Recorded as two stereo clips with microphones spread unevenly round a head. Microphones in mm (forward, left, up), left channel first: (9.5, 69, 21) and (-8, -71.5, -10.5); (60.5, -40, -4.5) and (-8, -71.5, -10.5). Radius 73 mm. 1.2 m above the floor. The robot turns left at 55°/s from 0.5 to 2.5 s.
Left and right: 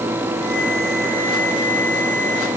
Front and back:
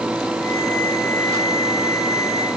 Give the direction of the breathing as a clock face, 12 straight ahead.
No breathing in this recording.